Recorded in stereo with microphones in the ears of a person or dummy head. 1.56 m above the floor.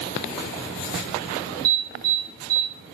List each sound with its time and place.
1.6 s an alarm: 55° right (ahead or behind), 5 m